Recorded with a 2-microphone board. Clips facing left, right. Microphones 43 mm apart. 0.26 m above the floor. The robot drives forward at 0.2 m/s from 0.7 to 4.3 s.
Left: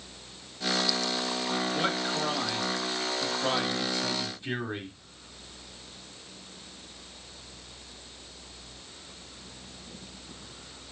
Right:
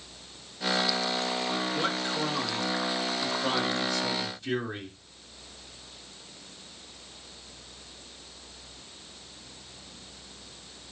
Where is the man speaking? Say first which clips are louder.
Even; 20° left (ahead or behind), 1.0 m; by 5.0 s 15° left (ahead or behind), 1.3 m.